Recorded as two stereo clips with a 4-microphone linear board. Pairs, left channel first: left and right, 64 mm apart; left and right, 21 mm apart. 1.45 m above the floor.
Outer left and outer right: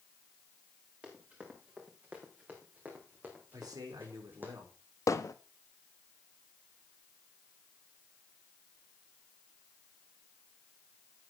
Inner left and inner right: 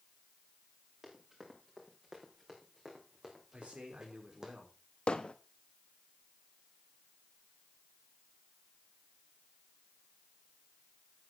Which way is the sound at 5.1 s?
55° left (ahead or behind).